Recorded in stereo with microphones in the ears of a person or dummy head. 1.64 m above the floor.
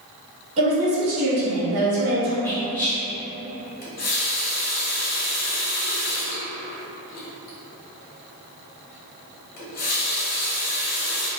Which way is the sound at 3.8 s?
45° left (ahead or behind).